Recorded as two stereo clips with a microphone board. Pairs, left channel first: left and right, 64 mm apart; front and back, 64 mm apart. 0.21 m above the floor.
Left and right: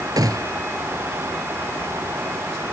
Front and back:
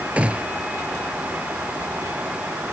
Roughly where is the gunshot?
Right.